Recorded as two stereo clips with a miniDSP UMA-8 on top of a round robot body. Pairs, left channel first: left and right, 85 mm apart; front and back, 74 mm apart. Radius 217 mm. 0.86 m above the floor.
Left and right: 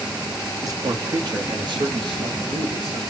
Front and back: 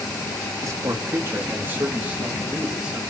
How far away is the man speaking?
About 2.5 m.